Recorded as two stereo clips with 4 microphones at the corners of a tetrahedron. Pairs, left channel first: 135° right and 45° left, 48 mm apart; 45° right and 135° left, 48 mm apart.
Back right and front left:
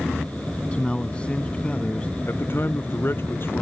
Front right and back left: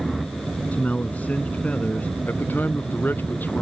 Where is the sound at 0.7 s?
80° right.